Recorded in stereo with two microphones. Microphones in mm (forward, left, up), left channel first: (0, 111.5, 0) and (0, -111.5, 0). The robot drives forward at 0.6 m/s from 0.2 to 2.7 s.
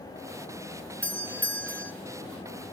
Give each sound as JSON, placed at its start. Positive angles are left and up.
{"t": 1.0, "sound": "a doorbell", "side_deg": 5, "distance_m": 0.7}